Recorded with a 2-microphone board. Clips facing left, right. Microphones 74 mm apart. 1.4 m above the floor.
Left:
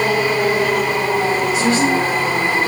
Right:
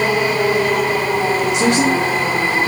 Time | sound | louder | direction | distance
1.5 | a woman speaking | right 1 dB | 75° right (ahead or behind) | 1.4 m